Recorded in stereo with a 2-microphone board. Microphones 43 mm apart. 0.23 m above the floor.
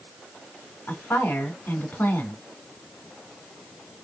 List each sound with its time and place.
0.9 s a woman speaking: 55° left (ahead or behind), 2 m